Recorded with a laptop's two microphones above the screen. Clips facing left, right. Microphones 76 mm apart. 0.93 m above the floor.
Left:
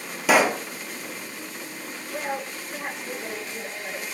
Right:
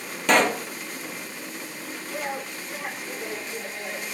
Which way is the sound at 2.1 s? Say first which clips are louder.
Left 2 dB; centre (ahead or behind).